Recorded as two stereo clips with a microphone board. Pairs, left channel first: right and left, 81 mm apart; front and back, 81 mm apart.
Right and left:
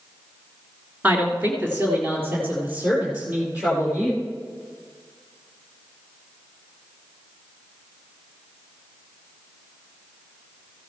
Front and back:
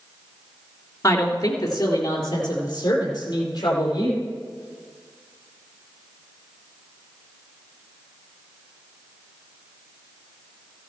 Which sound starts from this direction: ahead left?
A woman speaking, at 1.0 s.